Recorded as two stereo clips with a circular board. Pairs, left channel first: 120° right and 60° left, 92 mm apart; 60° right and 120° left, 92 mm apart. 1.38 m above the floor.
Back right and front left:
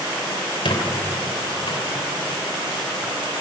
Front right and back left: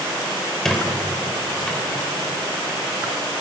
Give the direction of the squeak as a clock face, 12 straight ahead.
5 o'clock.